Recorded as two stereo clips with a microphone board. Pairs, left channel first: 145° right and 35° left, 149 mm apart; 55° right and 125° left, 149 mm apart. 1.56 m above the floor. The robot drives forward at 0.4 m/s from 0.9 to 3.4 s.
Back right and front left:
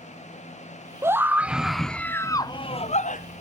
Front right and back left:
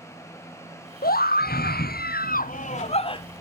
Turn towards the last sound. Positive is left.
turn(degrees=-120)